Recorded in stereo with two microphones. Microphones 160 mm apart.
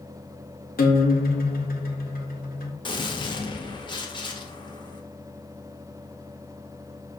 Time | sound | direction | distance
0.8 | a guitar | 65° left (ahead or behind) | 0.6 m
2.9 | a gunshot | 30° left (ahead or behind) | 0.5 m